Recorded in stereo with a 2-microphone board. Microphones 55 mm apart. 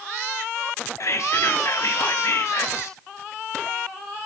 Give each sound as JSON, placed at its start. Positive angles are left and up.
{"t": 1.0, "sound": "whispering", "side_deg": 65, "distance_m": 3.5}